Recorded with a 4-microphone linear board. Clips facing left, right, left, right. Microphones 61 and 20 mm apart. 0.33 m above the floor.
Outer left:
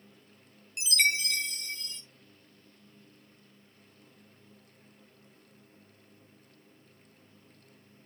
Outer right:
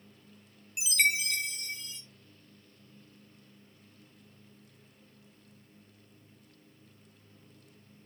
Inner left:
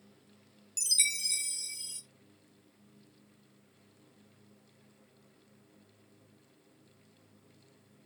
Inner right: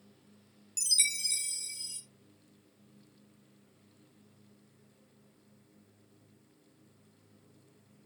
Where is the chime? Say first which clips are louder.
Even, even; 5° right (ahead or behind), 1.6 m.